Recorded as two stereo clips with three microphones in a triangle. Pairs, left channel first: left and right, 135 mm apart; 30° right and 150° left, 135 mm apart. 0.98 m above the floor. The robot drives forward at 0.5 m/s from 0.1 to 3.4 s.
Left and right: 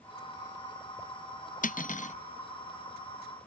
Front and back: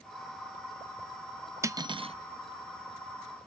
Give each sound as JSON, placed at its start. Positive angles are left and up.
{"t": 1.6, "sound": "cutlery clinking", "azimuth_deg": 85, "distance_m": 0.5}